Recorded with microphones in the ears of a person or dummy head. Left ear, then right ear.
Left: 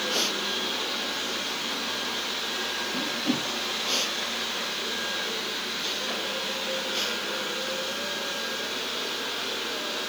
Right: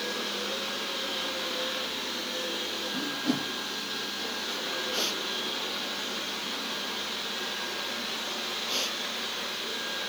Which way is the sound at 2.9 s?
60° right (ahead or behind).